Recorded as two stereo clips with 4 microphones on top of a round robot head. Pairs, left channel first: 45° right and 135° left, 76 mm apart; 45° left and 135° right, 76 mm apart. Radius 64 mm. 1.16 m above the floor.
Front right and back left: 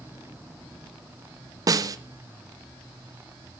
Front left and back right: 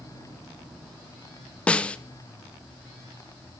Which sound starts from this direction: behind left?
A snare drum, at 1.7 s.